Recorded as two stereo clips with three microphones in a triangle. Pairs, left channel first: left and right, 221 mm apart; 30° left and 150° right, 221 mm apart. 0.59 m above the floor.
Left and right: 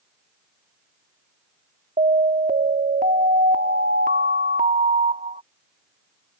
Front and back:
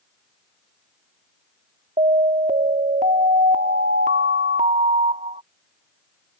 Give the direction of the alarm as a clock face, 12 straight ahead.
4 o'clock.